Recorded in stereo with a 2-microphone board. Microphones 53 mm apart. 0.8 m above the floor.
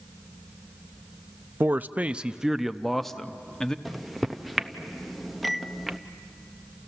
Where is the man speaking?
40° right (ahead or behind), 0.5 m; by 3.8 s 15° left (ahead or behind), 1.1 m.